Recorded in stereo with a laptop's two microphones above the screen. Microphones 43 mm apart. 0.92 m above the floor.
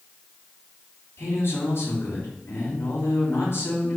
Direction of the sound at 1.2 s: 70° left (ahead or behind).